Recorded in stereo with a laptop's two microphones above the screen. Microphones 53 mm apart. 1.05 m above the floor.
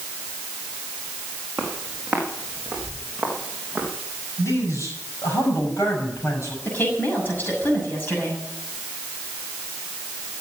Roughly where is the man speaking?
Left.